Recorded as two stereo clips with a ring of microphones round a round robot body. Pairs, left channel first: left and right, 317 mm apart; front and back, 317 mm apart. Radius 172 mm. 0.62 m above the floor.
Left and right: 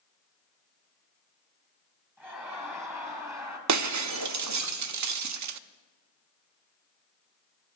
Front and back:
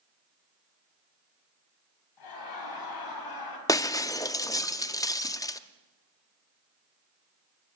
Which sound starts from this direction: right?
Breaking glass, at 3.7 s.